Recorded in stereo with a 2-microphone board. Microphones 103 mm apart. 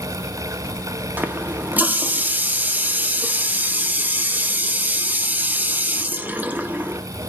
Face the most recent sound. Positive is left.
turn(degrees=-15)  # may be behind; listen again after turning